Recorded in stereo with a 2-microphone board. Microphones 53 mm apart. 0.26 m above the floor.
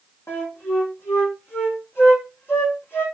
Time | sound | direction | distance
0.3 | a flute | 55° left (ahead or behind) | 4 m